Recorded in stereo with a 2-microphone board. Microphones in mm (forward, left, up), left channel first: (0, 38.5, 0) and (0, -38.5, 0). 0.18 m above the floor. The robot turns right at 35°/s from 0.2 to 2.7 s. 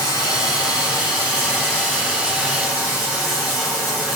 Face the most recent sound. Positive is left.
turn(degrees=-175)